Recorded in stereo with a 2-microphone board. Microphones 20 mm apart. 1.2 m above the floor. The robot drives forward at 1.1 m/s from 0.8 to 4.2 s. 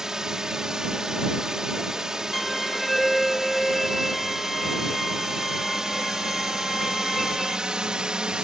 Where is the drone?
35° right (ahead or behind); by 8.5 s 55° right (ahead or behind).